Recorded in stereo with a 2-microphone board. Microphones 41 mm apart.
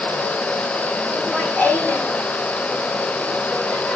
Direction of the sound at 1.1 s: 30° left (ahead or behind).